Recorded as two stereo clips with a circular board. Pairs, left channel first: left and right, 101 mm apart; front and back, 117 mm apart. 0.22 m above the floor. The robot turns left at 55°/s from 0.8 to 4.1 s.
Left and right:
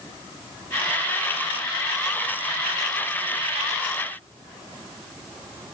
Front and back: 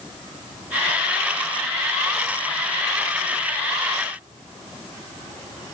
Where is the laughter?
No laughter in this recording.